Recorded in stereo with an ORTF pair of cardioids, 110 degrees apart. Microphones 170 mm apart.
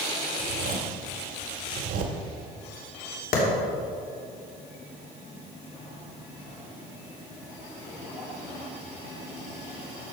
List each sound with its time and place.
0.4 s a zipper: 60° right, 1.7 m
3.3 s a clap: 60° left, 3 m